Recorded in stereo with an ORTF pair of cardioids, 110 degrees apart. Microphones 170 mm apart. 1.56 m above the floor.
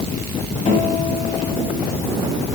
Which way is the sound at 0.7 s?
40° left.